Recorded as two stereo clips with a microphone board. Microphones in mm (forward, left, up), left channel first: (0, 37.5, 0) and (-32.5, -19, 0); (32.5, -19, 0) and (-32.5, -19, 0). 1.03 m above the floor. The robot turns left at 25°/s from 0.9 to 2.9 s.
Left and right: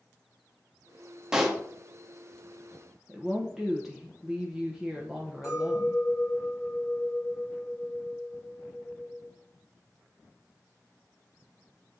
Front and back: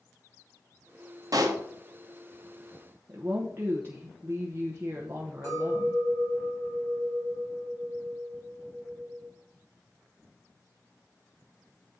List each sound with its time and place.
1.3 s a pop: 160° left, 1.1 m; by 1.6 s 155° left, 1.1 m
3.1 s a woman speaking: 155° left, 0.9 m
5.4 s a clink: 25° left, 3 m